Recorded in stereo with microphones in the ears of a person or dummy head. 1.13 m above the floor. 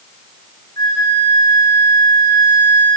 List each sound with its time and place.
0.8 s a flute: 20° left (ahead or behind), 9.5 m